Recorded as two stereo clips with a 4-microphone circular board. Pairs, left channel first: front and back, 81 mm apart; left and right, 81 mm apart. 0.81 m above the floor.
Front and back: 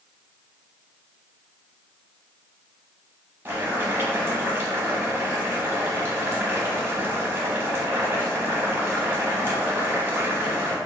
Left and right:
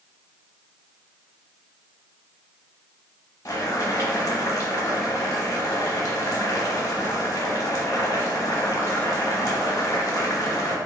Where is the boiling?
125° left, 1.0 m.